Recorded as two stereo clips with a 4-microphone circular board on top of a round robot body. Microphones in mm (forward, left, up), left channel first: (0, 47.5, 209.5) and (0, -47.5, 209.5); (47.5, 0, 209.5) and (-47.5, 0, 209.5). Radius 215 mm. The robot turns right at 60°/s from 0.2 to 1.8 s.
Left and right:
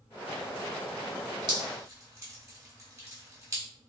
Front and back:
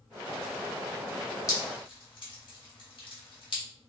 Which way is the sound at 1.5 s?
50° right.